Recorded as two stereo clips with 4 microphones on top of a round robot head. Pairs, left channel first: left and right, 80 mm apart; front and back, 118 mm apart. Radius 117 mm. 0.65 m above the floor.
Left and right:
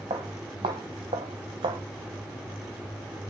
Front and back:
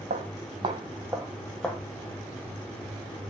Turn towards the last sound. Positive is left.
turn(degrees=-80)